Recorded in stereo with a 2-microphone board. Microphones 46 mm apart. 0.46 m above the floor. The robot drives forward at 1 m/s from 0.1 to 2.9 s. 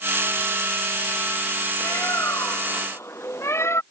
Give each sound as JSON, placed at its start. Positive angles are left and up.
{"t": 1.8, "sound": "a bird", "side_deg": 75}